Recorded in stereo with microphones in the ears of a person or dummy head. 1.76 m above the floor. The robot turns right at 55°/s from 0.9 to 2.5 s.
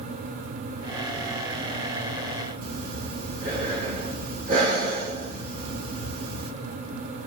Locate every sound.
2.6 s breathing: 55° right (ahead or behind), 2 m